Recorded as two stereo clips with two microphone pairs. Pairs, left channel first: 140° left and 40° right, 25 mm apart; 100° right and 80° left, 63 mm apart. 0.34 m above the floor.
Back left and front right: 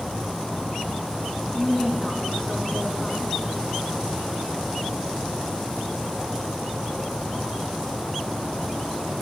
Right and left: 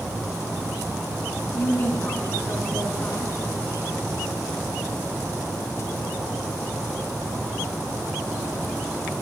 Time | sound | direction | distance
1.5 | a woman speaking | 160° right | 3 m